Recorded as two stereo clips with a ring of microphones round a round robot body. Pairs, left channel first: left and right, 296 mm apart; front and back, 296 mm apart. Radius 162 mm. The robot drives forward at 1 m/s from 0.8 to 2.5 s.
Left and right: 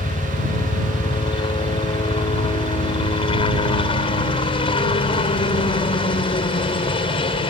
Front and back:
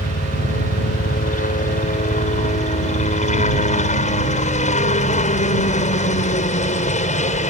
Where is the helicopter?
30° left; by 7.5 s 35° left.